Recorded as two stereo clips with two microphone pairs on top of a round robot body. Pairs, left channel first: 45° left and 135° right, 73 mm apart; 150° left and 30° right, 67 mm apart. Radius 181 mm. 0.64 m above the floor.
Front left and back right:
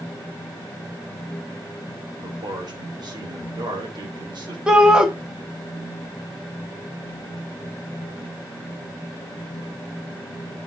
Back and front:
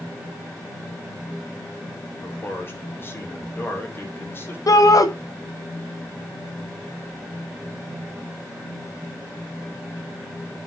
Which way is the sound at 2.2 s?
155° right.